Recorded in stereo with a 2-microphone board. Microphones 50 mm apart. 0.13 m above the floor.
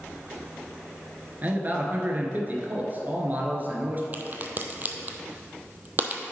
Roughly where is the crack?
Right.